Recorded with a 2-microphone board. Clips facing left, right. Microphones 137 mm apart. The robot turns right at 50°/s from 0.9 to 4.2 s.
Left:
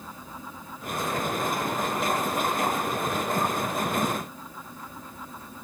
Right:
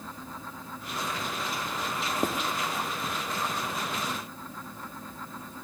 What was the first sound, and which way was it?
Writing, 45° right (ahead or behind).